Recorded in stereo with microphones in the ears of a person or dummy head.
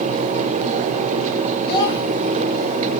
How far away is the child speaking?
About 4 m.